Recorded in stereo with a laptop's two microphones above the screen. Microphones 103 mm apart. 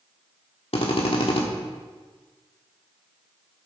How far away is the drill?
About 1.7 m.